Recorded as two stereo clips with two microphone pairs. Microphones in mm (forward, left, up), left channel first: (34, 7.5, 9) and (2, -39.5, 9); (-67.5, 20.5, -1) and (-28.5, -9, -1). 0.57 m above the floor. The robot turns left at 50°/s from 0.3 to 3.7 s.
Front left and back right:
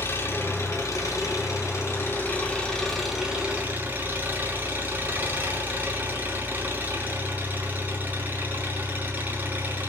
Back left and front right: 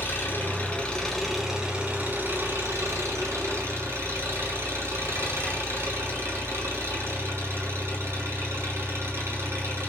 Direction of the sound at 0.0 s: 100° left.